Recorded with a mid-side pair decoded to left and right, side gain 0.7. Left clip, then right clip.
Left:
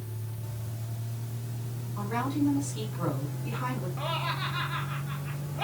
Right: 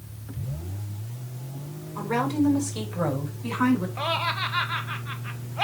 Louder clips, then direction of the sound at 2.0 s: Right 5 dB; 50° right.